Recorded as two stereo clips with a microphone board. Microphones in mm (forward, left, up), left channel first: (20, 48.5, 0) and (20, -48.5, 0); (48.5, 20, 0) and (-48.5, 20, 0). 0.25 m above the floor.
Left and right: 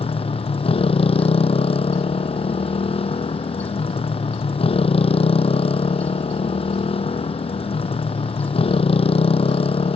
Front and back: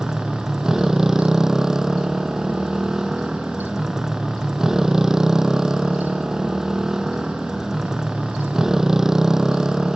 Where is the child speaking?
No child speaking in this recording.